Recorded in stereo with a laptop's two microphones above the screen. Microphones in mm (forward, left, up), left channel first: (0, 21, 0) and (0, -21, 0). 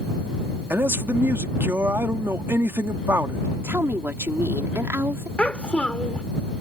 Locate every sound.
0.7 s a man speaking: 70° right (ahead or behind)
3.6 s a woman speaking: 80° right
5.4 s a child speaking: 25° left (ahead or behind)